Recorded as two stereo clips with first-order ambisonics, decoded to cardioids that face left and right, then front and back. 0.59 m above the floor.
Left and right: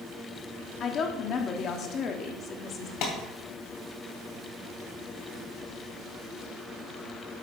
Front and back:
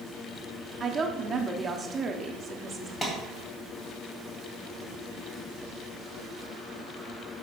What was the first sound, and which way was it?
A woman speaking, 120° left.